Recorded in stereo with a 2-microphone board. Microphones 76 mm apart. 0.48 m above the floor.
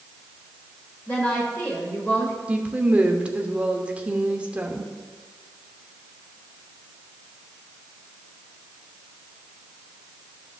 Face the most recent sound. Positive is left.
turn(degrees=-15)  # may be behind; listen again after turning